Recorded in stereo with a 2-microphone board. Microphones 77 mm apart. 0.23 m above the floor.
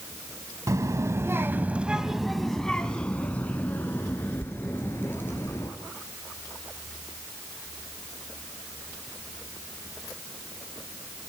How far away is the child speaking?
About 0.8 m.